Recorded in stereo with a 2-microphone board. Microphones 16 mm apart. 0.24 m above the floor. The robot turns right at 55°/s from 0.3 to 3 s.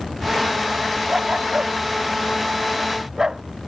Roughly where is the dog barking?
Right.